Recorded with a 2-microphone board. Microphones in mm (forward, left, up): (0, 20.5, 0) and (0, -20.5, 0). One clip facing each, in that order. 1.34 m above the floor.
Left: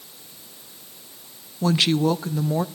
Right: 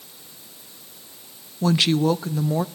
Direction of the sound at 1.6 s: Centre (ahead or behind).